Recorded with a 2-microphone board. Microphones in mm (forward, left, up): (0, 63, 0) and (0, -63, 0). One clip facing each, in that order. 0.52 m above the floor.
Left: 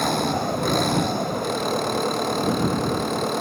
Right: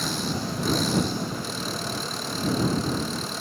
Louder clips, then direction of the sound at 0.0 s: Left 7 dB; 65° left (ahead or behind).